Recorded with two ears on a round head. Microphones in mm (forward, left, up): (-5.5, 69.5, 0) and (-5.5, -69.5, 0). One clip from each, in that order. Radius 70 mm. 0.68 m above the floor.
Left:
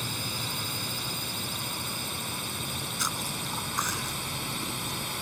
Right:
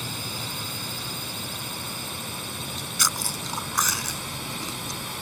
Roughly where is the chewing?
Right.